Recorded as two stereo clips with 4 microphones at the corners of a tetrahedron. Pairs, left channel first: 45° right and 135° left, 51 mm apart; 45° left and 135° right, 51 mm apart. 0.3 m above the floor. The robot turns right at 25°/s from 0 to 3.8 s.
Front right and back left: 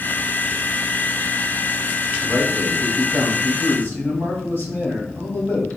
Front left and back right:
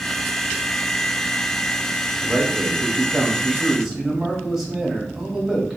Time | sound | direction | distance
2.2 | a man speaking | 90° right | 1.4 m